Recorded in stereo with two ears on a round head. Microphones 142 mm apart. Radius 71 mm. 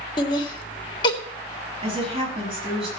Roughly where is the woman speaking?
Right.